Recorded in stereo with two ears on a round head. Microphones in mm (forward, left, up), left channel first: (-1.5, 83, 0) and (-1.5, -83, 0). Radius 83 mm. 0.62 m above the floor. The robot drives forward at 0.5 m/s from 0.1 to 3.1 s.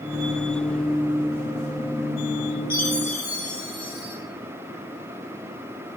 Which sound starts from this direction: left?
A chime, at 2.7 s.